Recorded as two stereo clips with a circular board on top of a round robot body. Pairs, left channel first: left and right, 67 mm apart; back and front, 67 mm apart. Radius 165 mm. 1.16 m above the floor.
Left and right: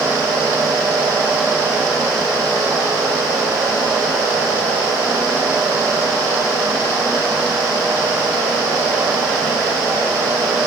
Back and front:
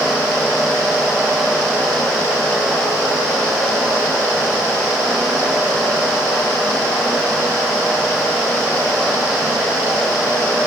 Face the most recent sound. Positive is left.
No sound to turn to.